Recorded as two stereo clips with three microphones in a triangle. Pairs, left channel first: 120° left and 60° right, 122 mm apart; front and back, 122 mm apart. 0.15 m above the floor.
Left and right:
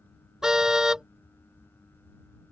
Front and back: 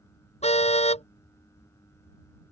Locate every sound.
0.4 s a car horn: 25° left